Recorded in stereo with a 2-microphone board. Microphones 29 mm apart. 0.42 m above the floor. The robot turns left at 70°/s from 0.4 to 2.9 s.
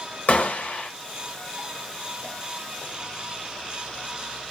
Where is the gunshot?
105° left, 1.8 m; by 0.9 s 70° left, 1.8 m.